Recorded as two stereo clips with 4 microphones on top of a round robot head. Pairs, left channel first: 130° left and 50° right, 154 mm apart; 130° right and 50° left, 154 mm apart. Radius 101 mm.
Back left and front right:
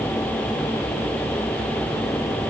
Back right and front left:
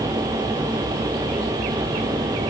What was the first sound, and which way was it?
Only background noise.